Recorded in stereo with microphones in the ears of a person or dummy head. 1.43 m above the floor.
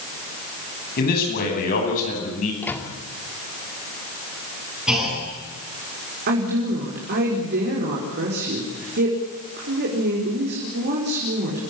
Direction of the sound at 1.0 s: 50° left (ahead or behind).